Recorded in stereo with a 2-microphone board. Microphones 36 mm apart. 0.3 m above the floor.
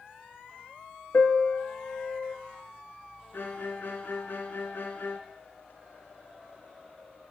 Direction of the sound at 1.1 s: 45° left (ahead or behind).